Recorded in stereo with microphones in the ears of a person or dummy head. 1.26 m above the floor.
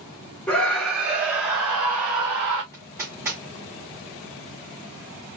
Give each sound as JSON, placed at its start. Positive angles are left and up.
{"t": 0.5, "sound": "a scream", "side_deg": 5, "distance_m": 1.0}
{"t": 2.7, "sound": "hammering", "side_deg": -15, "distance_m": 3.0}